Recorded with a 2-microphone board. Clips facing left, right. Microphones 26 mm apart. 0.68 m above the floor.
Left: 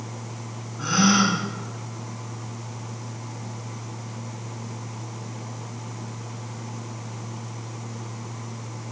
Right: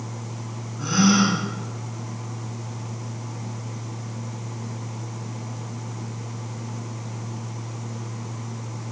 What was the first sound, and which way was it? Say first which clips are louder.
A gasp: even; 10° left (ahead or behind).